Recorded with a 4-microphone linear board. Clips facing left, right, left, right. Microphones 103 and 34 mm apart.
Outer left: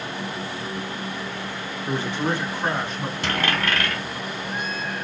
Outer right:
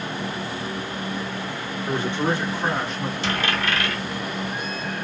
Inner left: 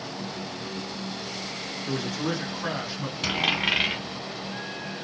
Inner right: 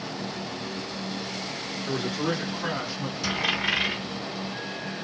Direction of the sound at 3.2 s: 50° left (ahead or behind).